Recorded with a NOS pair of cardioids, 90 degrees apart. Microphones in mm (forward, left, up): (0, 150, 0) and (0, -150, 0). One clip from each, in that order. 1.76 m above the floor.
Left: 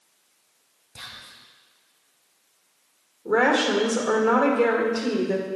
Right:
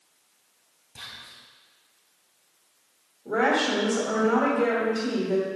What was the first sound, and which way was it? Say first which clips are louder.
Whispering: left 1 dB; 25° left.